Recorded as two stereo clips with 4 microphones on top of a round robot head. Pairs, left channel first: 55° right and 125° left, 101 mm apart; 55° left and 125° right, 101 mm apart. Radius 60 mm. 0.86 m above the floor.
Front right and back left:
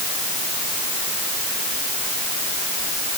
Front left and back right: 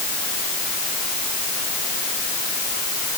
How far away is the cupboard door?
I don't hear a cupboard door.